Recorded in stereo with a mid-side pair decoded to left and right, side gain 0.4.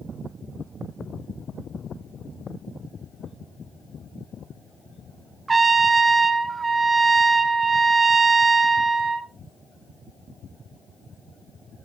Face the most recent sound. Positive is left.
turn(degrees=-35)